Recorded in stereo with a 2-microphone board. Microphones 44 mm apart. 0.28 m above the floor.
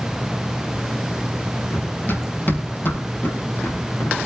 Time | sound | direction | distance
1.7 | running footsteps | 45° left (ahead or behind) | 4.5 m